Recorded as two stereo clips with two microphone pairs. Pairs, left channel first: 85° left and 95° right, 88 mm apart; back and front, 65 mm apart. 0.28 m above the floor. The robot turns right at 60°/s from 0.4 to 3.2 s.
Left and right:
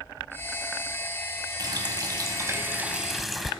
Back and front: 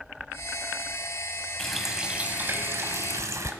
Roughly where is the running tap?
Right.